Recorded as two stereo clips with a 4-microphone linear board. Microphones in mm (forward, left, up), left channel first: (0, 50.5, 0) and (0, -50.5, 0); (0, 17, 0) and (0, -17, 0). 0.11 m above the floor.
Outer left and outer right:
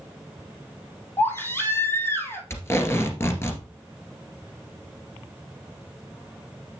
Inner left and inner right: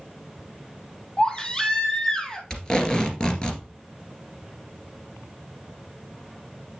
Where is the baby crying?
25° left (ahead or behind), 1.6 m.